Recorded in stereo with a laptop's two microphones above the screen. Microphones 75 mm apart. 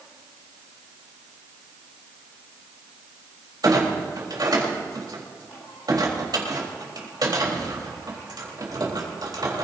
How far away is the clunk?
About 4 m.